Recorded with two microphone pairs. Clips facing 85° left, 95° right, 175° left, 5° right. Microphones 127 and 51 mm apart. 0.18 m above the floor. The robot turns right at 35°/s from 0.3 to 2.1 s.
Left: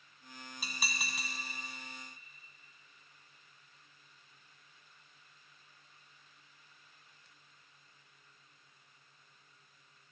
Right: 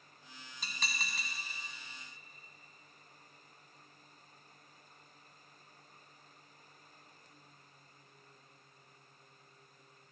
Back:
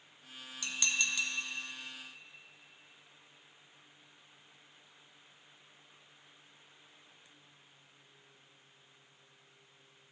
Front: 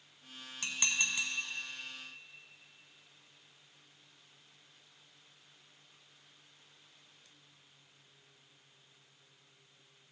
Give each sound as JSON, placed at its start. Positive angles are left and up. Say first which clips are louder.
{"t": 0.6, "sound": "dishes clattering", "louder": "left 1 dB, even", "azimuth_deg": 10, "distance_m": 0.9}